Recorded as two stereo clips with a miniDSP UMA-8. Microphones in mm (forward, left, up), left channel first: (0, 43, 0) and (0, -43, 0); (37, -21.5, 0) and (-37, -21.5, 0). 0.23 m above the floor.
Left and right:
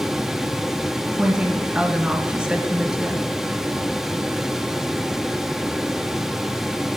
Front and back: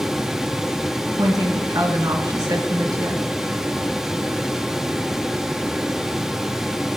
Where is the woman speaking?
170° right, 2 m.